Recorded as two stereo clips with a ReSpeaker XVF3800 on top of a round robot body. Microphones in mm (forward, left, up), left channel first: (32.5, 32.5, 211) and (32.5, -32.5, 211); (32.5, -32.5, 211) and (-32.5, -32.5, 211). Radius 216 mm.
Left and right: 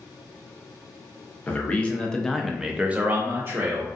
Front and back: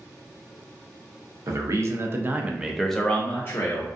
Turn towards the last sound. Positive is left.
turn(degrees=-45)